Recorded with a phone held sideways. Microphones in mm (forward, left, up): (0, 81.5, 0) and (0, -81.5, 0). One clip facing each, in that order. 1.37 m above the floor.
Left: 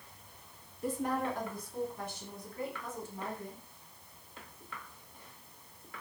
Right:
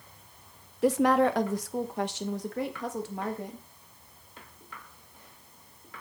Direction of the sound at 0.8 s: 80° right.